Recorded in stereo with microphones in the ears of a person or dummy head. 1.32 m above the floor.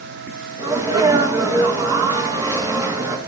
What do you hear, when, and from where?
0.6 s a sneeze: 20° right (ahead or behind), 2.5 m